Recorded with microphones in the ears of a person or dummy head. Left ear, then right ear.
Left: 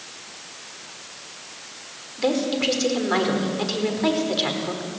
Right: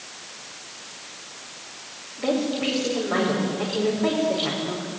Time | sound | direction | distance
2.2 | a woman speaking | 80° left | 5 m